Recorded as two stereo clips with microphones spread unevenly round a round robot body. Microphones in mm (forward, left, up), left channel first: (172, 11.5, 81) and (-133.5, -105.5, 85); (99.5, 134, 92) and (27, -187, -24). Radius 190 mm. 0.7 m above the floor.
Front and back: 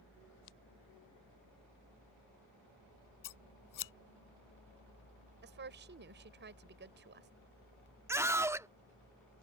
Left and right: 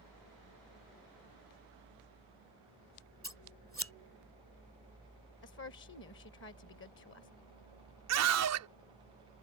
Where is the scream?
75° right.